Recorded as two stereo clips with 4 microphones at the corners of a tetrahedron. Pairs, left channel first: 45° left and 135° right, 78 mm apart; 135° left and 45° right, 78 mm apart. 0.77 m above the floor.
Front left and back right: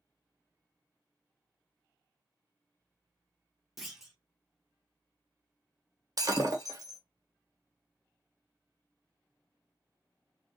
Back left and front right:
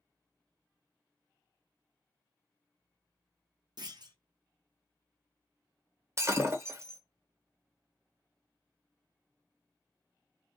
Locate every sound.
3.8 s a clunk: 50° right, 0.9 m
6.2 s breaking glass: 100° right, 0.9 m